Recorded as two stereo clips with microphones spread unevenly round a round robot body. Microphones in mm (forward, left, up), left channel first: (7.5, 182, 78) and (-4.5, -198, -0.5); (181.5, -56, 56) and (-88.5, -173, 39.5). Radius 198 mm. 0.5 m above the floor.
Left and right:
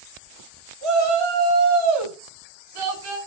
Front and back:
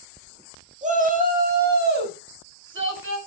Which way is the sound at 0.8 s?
90° right.